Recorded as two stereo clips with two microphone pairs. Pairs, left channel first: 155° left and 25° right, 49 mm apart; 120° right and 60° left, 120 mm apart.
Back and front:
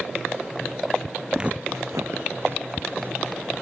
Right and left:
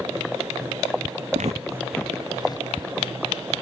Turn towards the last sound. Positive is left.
turn(degrees=-75)